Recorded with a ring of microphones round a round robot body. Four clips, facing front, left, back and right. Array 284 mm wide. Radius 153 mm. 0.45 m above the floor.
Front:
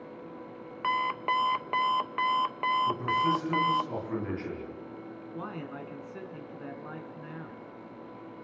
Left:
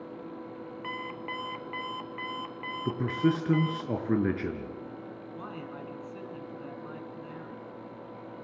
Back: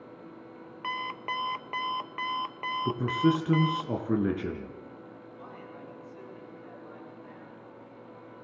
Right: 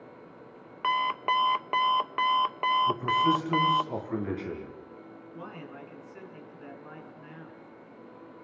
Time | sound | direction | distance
0.8 | an alarm clock | 65° right | 0.7 m
2.9 | a man speaking | 130° left | 6 m
5.3 | a man speaking | 15° left | 5 m